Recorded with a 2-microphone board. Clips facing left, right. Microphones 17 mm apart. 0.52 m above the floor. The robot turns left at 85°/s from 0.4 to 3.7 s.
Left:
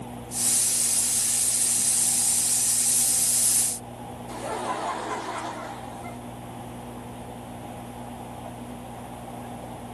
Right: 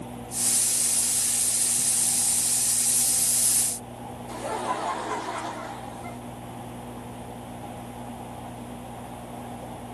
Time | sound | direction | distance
4.3 | laughter | 5° right (ahead or behind) | 1.1 m